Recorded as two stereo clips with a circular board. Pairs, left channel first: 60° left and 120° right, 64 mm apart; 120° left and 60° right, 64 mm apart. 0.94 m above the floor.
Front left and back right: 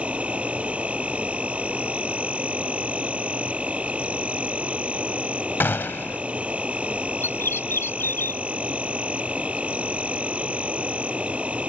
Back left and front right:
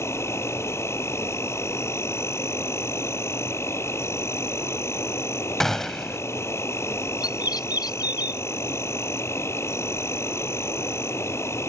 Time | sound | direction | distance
0.0 | an insect | 170° left | ?
5.6 | a gunshot | 35° left | ?
7.2 | a bird | 110° left | ?